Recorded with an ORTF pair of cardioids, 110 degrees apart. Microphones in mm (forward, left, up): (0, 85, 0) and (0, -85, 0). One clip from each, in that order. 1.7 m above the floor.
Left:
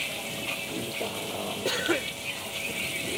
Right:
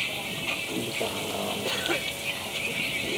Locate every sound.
0.0 s a vehicle: 15° right
1.6 s a cough: 25° left